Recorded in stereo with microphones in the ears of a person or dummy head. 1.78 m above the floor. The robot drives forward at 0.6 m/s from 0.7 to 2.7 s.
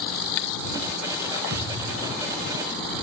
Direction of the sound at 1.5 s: 75° right (ahead or behind).